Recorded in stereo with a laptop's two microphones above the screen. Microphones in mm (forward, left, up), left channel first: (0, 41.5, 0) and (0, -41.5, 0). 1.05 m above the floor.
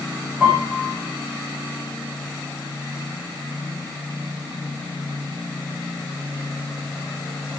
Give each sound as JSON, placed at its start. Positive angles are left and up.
{"t": 0.4, "sound": "a piano", "side_deg": 5, "distance_m": 8.5}